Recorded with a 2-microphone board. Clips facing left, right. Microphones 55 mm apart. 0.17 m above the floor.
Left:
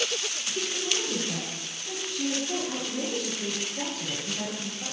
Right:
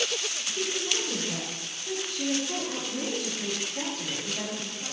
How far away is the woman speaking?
About 1.9 m.